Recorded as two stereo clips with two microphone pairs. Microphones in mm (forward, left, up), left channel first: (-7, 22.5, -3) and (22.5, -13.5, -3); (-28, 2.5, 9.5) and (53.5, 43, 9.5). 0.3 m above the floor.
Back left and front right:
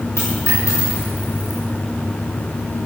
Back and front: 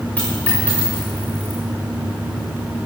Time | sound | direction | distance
0.2 | a dropped coin | 135° left | 7.5 m